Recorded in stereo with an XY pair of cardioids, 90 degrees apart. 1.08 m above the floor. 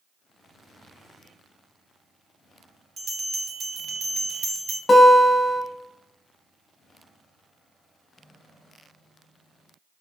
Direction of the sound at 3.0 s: 50° right.